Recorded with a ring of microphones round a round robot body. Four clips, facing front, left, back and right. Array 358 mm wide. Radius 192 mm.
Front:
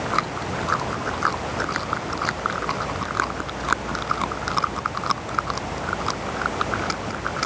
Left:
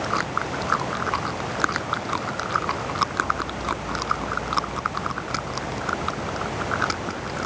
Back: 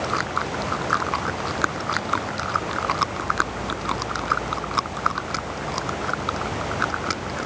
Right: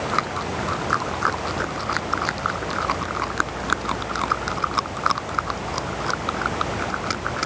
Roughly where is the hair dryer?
I don't hear a hair dryer.